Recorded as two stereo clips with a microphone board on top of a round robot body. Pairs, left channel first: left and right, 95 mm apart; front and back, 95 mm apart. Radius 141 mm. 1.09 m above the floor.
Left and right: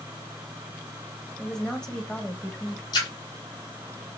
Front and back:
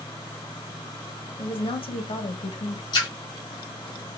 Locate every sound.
1.4 s a woman speaking: 10° left, 1.8 m
2.9 s a splash: 45° left, 1.5 m